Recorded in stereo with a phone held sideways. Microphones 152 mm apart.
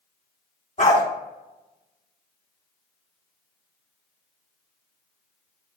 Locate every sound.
0.8 s a dog barking: 50° left (ahead or behind), 1.0 m